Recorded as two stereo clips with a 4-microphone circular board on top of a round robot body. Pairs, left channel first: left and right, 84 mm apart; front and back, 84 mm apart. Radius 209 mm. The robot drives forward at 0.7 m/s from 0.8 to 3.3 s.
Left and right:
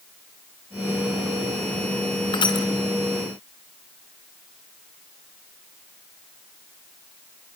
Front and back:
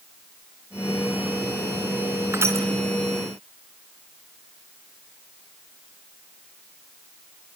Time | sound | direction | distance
2.3 | crushing | 120° left | 3 m